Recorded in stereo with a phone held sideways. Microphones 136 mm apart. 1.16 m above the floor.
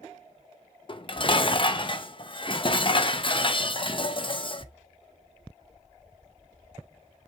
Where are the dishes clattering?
40° left (ahead or behind), 0.6 m.